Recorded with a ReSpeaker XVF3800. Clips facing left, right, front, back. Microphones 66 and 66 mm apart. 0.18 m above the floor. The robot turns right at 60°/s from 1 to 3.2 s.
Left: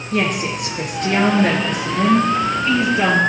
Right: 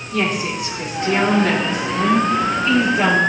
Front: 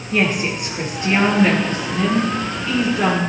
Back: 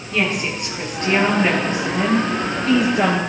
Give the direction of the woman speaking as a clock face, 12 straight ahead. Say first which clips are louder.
Left 1 dB, front 2 dB; 10 o'clock.